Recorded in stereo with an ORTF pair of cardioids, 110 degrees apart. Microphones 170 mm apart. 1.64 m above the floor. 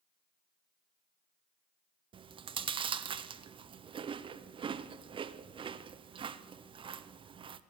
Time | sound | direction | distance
2.1 | chewing | 35° right | 0.5 m